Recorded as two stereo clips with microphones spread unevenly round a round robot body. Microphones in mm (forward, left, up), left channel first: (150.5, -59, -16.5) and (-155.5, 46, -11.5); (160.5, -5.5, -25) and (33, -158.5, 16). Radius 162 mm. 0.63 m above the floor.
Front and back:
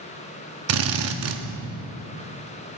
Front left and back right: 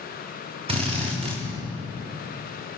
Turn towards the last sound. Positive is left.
turn(degrees=160)